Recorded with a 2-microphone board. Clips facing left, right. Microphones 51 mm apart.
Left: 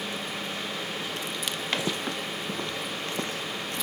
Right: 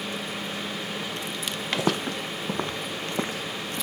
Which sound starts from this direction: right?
Footsteps, at 1.8 s.